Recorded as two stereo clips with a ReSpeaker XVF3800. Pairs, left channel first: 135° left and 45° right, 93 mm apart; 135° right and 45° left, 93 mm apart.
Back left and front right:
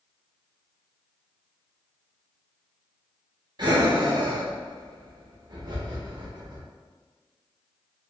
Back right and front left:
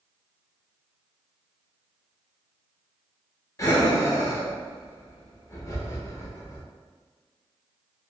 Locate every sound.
3.6 s breathing: 80° right, 0.6 m